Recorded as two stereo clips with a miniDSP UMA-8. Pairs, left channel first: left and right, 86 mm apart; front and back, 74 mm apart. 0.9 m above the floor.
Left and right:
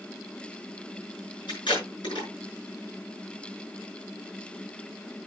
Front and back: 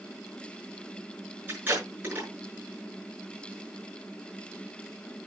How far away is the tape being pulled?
About 6.5 m.